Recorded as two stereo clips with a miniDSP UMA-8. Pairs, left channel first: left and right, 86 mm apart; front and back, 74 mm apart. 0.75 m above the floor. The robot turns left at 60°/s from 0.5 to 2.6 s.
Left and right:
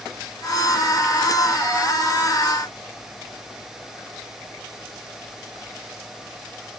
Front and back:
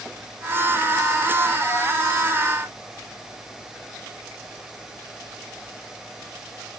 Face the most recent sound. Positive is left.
No sound to turn to.